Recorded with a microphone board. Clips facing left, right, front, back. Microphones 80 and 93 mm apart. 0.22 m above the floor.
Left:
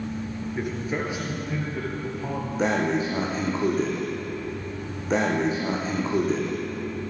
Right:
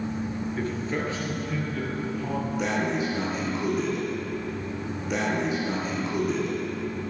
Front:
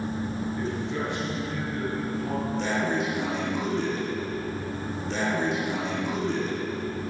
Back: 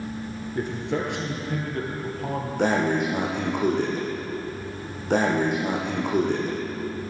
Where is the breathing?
145° left, 3.5 m.